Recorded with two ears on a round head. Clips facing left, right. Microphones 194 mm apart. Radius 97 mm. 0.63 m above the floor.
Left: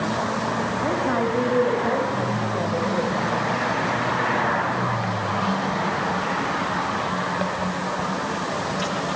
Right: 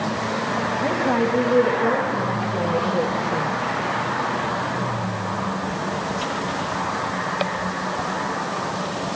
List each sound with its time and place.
0.8 s a woman speaking: 50° right (ahead or behind), 3.5 m; by 3.5 s 65° right (ahead or behind), 1.8 m